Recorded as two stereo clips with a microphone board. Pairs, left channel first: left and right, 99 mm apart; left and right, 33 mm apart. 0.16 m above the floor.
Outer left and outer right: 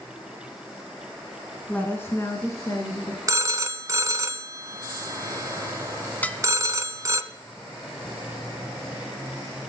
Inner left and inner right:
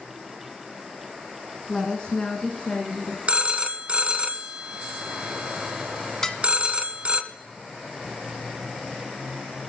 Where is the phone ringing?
35° right (ahead or behind), 0.8 m.